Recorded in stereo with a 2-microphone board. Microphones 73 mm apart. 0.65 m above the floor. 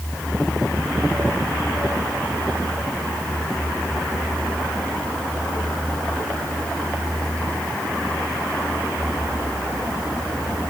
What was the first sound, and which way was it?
Only background noise.